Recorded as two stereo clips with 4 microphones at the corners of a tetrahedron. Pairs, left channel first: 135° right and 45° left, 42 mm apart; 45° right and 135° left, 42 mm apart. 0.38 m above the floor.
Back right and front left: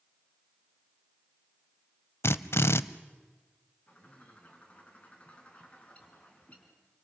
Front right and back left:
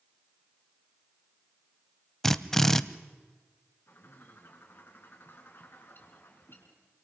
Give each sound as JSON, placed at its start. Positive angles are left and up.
{"t": 2.2, "sound": "a drill", "azimuth_deg": -125, "distance_m": 0.6}
{"t": 3.9, "sound": "a bird", "azimuth_deg": -80, "distance_m": 3.5}